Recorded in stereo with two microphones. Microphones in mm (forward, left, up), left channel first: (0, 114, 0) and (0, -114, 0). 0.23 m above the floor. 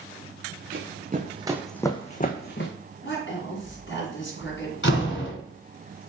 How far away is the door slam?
About 1.7 m.